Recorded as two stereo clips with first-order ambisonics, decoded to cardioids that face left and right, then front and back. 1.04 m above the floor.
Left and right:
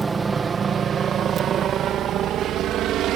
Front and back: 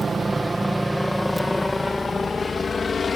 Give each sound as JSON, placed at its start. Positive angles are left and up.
{"t": 0.0, "sound": "a helicopter", "azimuth_deg": -140}